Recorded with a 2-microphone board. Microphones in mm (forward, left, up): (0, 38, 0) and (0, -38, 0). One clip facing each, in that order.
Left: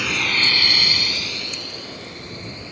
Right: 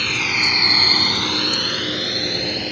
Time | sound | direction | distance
0.0 | a drone | 5° left (ahead or behind) | ?